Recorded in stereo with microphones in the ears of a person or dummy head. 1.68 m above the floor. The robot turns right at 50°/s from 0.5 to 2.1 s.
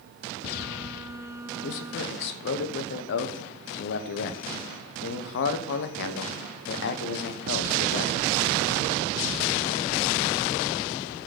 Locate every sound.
1.6 s a man speaking: 70° left (ahead or behind), 0.8 m; by 8.3 s 60° left (ahead or behind), 0.8 m